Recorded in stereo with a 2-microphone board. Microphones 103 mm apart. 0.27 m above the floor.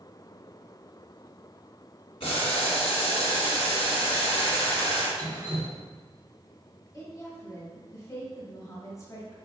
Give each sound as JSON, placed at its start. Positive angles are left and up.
{"t": 2.2, "sound": "boiling", "side_deg": 70, "distance_m": 2.0}
{"t": 5.2, "sound": "dripping", "side_deg": -60, "distance_m": 1.7}
{"t": 6.9, "sound": "a woman speaking", "side_deg": 35, "distance_m": 1.4}